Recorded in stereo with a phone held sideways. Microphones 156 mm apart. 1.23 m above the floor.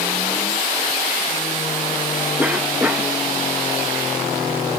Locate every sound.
2.4 s a cough: 10° right (ahead or behind)